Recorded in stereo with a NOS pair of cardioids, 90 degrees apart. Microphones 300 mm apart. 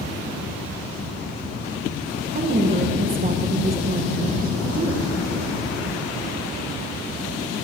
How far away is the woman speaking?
About 1.5 m.